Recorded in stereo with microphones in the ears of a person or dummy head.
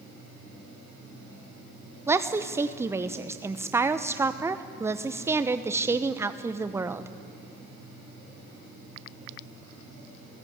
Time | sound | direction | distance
2.1 | a woman speaking | 10° right (ahead or behind) | 0.8 m